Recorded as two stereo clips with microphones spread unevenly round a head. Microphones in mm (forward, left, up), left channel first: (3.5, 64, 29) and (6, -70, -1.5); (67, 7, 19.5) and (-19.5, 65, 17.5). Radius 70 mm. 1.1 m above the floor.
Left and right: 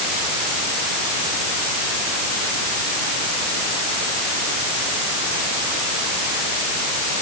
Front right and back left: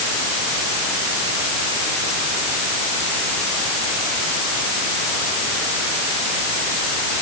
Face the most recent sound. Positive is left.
No sound to turn to.